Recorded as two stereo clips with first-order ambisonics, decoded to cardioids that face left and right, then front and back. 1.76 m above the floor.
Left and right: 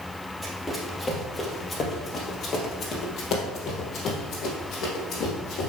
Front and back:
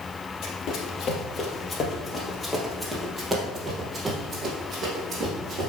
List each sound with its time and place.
0.4 s running footsteps: 5° left, 2 m; by 5.7 s 125° left, 3.5 m